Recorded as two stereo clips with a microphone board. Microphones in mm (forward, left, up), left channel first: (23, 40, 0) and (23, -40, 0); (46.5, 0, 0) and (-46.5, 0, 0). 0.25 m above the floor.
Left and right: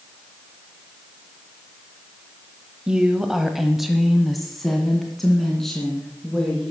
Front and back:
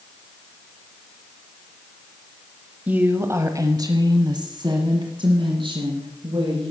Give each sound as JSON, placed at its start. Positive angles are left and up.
{"t": 2.9, "sound": "a woman speaking", "azimuth_deg": -145, "distance_m": 0.9}